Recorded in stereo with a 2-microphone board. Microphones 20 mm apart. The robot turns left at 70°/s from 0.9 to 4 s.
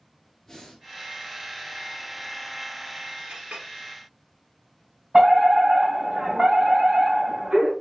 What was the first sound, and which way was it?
Breathing, 30° left (ahead or behind).